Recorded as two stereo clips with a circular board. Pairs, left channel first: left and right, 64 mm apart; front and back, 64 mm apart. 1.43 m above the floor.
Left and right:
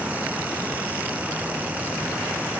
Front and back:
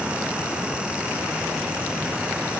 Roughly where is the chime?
I don't hear a chime.